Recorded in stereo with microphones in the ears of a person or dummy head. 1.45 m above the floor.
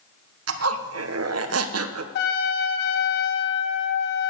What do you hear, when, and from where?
0.5 s a zipper: 75° right (ahead or behind), 1.2 m
2.1 s a trumpet: 65° left (ahead or behind), 1.4 m